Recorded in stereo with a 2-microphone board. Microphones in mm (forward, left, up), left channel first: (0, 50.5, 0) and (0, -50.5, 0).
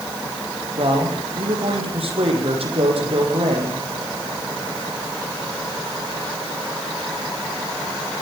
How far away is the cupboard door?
I don't hear a cupboard door.